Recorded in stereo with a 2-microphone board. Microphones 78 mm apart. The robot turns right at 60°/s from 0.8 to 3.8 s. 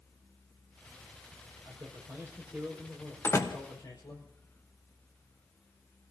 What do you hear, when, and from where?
1.6 s a man speaking: 70° right, 5 m; by 4.2 s 55° left, 5 m
3.2 s a door slam: 30° left (ahead or behind), 1.2 m; by 3.6 s 50° left (ahead or behind), 1.2 m